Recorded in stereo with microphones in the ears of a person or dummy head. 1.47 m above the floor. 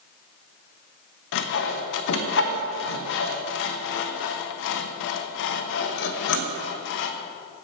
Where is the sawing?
60° left (ahead or behind), 1.0 m.